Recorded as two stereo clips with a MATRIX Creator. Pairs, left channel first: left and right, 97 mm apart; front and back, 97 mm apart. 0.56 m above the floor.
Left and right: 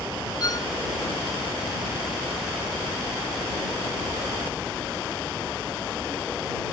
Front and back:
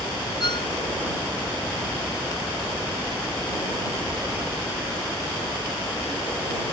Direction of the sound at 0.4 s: 40° left.